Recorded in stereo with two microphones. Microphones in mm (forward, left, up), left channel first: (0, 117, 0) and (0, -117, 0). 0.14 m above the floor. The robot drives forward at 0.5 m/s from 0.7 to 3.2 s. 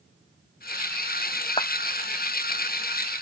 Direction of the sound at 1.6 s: 20° left (ahead or behind).